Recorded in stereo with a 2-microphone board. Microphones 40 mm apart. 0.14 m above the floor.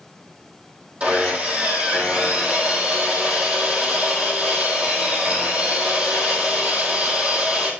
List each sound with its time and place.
1.0 s sawing: 30° right (ahead or behind), 1.7 m